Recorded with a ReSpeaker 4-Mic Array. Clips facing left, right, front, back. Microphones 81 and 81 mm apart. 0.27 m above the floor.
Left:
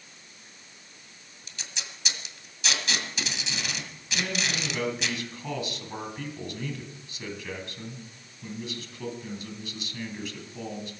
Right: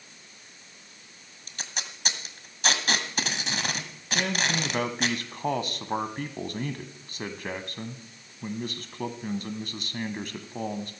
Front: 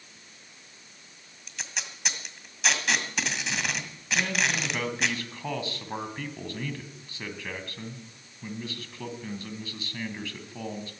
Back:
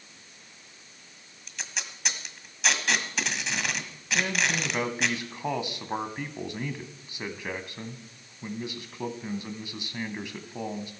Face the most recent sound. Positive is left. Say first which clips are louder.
# right 3 dB, even
turn(degrees=-115)